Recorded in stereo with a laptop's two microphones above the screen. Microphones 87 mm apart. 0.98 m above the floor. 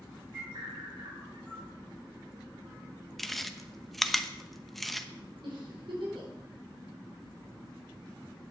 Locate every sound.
0.3 s a bird: 70° right (ahead or behind), 8 m
3.2 s chewing: centre (ahead or behind), 0.9 m
5.4 s a giggle: 75° right (ahead or behind), 4.5 m